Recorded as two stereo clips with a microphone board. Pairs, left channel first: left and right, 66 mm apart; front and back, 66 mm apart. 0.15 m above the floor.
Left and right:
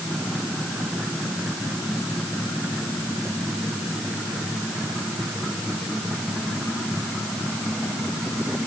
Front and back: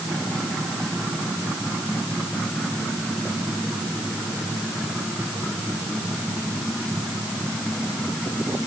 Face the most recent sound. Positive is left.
No sound to turn to.